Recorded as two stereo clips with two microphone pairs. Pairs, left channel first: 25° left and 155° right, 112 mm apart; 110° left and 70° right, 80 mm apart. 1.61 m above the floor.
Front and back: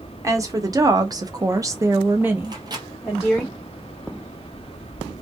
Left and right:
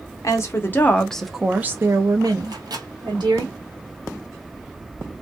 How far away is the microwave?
About 0.8 m.